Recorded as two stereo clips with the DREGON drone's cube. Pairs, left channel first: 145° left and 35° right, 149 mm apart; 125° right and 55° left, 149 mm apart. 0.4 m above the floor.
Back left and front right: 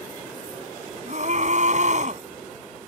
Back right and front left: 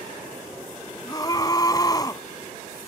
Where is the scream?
60° right.